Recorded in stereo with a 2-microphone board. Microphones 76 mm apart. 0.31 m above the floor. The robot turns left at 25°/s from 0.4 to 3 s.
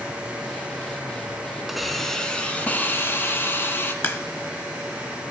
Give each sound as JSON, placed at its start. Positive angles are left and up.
{"t": 1.7, "sound": "a hiss", "azimuth_deg": -175, "distance_m": 0.8}
{"t": 4.0, "sound": "a crack", "side_deg": 30, "distance_m": 0.5}